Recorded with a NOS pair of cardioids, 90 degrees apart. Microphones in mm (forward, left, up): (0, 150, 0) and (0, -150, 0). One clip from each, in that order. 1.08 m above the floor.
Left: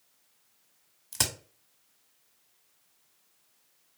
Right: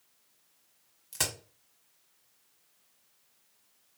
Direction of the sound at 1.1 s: 25° left.